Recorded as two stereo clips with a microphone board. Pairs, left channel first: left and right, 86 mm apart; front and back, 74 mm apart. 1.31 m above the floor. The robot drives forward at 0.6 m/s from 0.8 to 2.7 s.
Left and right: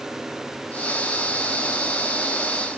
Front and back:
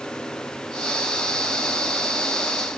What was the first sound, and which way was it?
Only background noise.